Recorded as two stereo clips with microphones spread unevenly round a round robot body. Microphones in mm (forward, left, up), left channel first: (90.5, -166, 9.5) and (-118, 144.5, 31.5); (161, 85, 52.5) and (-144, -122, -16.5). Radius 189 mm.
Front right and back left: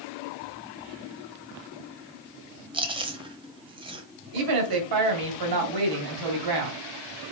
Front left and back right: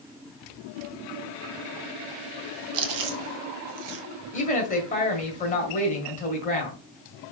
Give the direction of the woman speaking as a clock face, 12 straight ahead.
8 o'clock.